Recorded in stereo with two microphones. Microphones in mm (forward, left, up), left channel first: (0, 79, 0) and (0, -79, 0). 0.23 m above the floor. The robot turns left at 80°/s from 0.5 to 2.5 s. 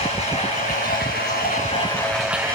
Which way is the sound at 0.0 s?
140° left.